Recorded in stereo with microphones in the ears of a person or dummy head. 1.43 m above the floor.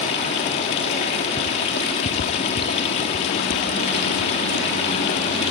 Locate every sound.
0.0 s running water: 25° left (ahead or behind), 1.0 m